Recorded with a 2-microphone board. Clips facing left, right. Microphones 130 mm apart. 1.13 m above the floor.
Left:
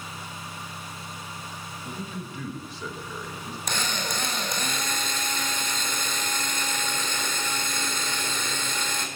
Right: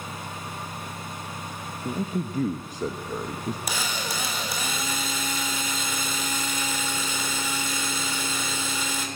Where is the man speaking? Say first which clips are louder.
Right 9 dB; 45° right (ahead or behind), 1.1 m.